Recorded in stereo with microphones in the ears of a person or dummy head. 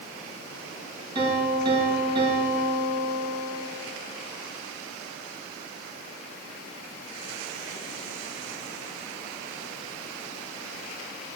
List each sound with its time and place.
1.1 s a piano: 30° right (ahead or behind), 1.9 m